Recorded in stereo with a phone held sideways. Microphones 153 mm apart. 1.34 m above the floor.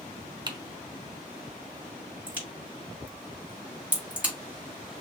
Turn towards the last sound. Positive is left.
turn(degrees=-10)  # may be behind; listen again after turning